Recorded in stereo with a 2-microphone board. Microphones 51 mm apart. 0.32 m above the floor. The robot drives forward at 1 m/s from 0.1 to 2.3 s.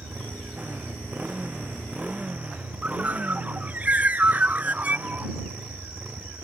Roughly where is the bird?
Right.